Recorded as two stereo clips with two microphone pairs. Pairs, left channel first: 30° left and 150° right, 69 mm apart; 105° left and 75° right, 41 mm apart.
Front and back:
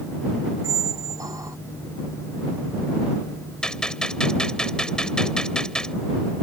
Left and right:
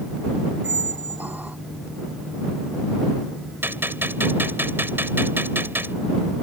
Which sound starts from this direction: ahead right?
A gunshot, at 3.6 s.